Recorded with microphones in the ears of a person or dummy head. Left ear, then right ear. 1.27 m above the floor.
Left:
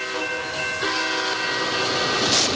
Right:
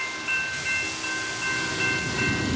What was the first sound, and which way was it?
Only background noise.